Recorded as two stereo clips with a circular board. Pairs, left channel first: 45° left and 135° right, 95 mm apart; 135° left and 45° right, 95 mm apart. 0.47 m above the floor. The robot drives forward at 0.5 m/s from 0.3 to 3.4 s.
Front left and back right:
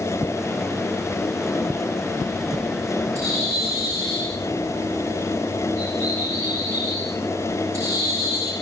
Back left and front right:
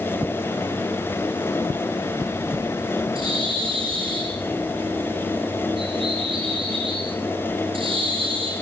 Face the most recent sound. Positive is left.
turn(degrees=-75)